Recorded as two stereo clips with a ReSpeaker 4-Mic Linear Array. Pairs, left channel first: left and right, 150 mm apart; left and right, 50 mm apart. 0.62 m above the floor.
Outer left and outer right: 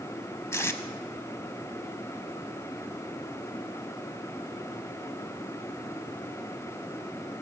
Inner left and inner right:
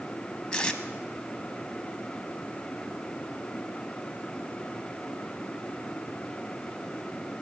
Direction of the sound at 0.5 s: 20° left (ahead or behind).